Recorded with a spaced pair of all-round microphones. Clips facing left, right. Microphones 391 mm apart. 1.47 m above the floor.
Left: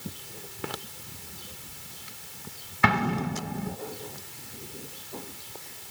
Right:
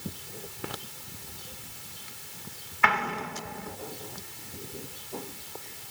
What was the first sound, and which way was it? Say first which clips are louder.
An explosion: left 7 dB; 50° left (ahead or behind).